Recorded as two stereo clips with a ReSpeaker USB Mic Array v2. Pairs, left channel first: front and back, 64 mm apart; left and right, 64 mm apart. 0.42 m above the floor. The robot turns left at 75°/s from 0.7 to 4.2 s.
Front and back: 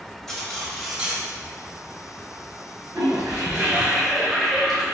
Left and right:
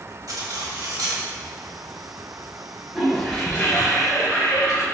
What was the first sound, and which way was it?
Cutlery clinking, 85° right.